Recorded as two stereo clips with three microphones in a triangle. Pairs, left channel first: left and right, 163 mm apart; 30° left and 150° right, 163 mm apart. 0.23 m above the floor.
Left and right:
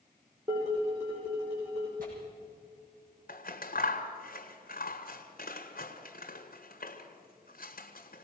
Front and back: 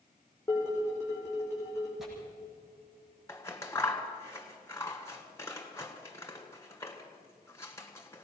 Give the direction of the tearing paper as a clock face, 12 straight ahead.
2 o'clock.